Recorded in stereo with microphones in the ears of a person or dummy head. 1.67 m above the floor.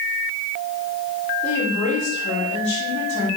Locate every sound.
1.4 s a woman speaking: 45° left (ahead or behind), 5.5 m